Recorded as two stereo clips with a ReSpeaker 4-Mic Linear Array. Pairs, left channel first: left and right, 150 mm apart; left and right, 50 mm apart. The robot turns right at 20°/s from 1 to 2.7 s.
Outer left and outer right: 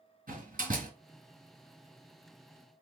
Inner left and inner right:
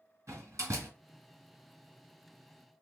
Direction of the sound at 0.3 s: 70° right (ahead or behind).